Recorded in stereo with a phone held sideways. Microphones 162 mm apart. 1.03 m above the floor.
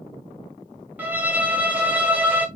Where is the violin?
10° right (ahead or behind), 1.1 m.